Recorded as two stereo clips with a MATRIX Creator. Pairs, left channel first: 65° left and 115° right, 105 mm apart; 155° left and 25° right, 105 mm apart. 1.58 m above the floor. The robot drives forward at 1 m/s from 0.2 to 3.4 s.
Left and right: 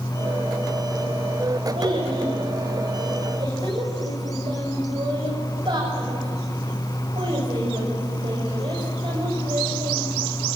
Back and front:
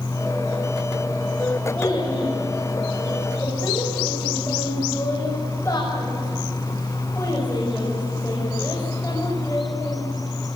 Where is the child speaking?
130° right, 6 m; by 10.0 s 140° right, 7 m.